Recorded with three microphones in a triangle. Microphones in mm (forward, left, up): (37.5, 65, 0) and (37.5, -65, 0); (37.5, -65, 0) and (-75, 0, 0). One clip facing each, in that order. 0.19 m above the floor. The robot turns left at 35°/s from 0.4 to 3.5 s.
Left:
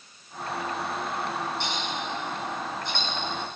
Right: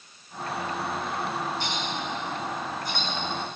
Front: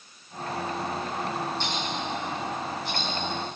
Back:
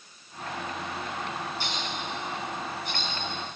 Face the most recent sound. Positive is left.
turn(degrees=5)